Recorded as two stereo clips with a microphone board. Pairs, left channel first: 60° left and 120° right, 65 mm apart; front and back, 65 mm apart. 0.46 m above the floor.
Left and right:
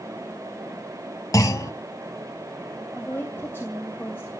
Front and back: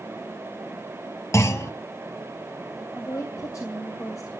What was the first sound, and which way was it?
A clunk, 40° left.